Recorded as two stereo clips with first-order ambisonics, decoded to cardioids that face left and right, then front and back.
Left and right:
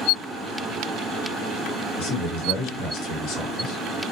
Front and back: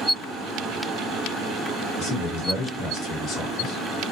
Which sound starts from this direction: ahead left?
A man speaking, at 2.0 s.